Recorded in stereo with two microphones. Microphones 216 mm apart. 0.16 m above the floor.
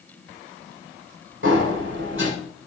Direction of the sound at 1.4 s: 70° right (ahead or behind).